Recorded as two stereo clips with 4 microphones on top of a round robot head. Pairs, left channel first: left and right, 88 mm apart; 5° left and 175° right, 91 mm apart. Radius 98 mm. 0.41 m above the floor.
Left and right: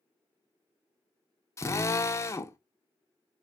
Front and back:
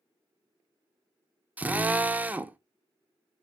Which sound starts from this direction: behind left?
A drill, at 1.6 s.